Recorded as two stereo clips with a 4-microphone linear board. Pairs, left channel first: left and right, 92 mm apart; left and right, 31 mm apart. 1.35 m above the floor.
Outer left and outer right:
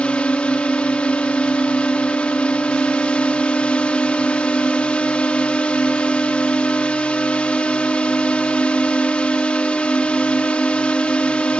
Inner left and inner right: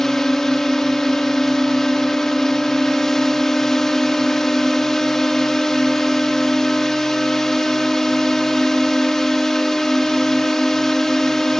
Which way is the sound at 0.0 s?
15° left (ahead or behind).